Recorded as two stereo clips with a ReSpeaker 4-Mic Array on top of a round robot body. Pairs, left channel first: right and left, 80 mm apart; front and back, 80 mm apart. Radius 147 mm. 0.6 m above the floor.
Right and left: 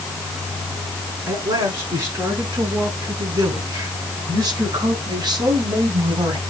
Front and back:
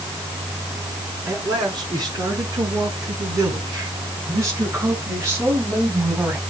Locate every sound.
1.3 s a man speaking: 140° left, 8 m; by 6.4 s 115° left, 4 m